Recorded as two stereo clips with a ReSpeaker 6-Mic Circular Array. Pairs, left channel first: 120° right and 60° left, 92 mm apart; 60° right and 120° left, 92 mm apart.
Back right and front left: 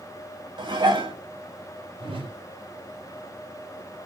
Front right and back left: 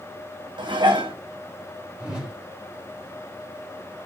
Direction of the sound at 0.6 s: 90° left.